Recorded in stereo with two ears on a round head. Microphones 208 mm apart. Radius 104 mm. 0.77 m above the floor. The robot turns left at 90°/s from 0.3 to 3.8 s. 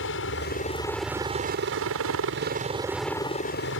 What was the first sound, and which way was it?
A helicopter, 65° left.